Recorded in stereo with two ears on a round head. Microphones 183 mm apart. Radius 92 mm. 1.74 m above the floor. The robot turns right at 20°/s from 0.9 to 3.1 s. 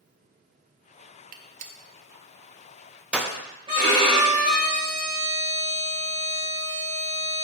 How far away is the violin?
About 3 m.